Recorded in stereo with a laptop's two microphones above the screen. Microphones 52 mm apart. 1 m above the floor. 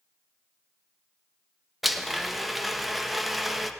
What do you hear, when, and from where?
1.8 s a blender: centre (ahead or behind), 0.6 m